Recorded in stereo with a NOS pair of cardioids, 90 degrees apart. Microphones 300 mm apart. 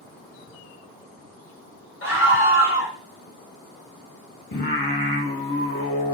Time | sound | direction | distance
2.0 | a scream | 40° left | 0.8 m
4.5 | singing | 30° left | 1.3 m